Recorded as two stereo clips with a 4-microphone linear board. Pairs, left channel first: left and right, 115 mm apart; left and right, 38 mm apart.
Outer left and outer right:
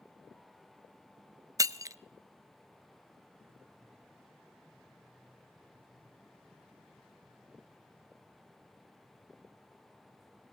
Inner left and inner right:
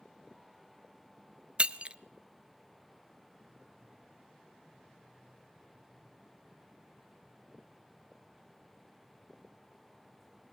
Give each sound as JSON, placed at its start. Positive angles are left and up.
{"t": 1.6, "sound": "breaking glass", "side_deg": -35, "distance_m": 0.7}